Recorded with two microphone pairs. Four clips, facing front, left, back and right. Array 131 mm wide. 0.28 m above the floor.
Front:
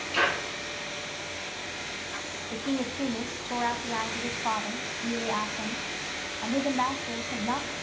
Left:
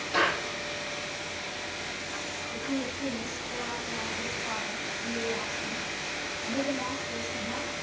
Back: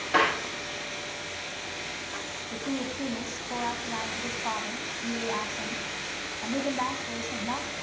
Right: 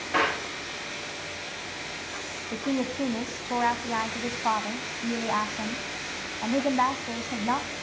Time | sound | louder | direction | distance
0.1 | a clap | right 1 dB, back 3 dB | 160° right | 9 m
2.5 | a woman speaking | right 5 dB, front 2 dB | 75° right | 1.6 m